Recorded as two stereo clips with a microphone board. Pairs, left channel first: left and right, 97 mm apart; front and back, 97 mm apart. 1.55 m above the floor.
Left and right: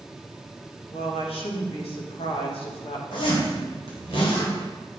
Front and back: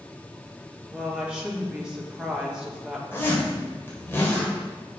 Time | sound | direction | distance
0.9 | a woman speaking | 100° left | 2.5 m
3.1 | a zipper | 65° left | 4 m